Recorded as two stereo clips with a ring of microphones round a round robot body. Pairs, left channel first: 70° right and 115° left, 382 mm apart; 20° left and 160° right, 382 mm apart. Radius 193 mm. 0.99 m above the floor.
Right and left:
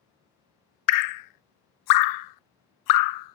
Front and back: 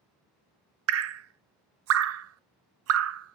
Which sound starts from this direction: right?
Dripping, at 0.9 s.